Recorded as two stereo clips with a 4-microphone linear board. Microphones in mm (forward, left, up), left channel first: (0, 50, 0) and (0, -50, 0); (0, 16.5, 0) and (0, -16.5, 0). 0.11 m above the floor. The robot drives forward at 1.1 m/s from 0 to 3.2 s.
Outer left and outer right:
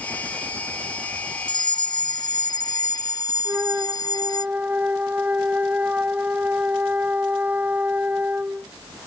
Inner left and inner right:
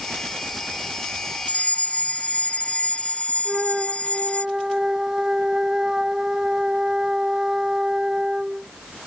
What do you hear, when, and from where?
1.5 s a fire alarm: 45° left (ahead or behind); by 4.5 s 40° left (ahead or behind)
3.5 s a flute: 15° right (ahead or behind)